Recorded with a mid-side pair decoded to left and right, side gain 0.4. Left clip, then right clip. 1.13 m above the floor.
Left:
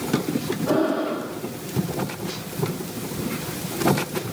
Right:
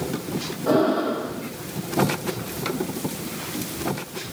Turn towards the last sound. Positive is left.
turn(degrees=-50)